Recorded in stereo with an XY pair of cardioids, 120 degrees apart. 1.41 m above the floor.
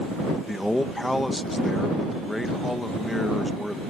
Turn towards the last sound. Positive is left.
turn(degrees=10)